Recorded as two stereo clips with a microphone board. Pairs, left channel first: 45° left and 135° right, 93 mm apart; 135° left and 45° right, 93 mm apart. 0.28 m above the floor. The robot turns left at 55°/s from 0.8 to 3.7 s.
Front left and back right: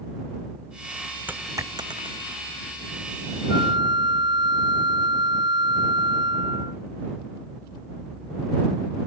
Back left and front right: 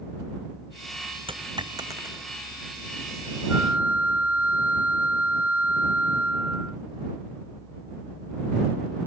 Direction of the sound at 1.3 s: 65° right.